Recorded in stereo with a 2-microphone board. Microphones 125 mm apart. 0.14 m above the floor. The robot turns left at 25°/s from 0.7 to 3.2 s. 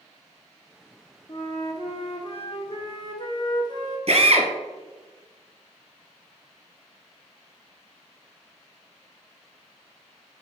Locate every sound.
1.3 s a flute: 95° left, 1.1 m; by 4.0 s 45° left, 1.1 m
4.1 s a drill: 50° right (ahead or behind), 1.3 m